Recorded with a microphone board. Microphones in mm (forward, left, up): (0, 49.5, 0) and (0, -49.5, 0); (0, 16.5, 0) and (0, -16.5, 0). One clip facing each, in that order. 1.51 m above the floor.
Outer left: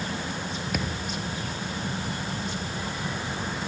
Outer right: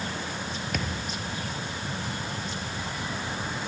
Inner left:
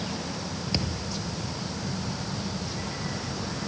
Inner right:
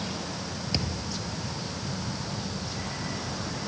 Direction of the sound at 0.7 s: 5° left (ahead or behind).